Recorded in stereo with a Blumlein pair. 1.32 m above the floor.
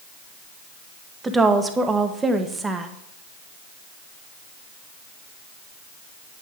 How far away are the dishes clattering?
I don't hear dishes clattering.